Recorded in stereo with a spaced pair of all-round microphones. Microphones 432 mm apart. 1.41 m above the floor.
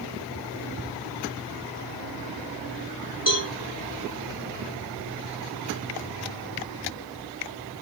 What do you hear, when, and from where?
3.3 s a cowbell: 45° left (ahead or behind), 2.5 m